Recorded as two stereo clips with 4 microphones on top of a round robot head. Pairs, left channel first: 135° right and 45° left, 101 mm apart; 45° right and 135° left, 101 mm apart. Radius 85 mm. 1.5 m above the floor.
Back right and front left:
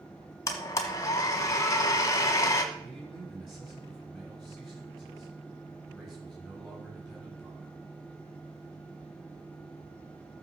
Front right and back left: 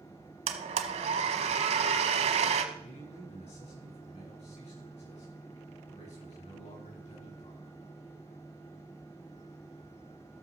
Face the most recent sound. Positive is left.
turn(degrees=-45)